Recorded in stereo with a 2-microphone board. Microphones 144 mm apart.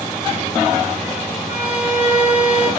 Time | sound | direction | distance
1.5 | a violin | 50° left (ahead or behind) | 5 m